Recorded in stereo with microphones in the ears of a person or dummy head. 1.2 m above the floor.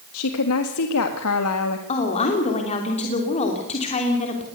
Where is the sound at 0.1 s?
80° left, 1.6 m.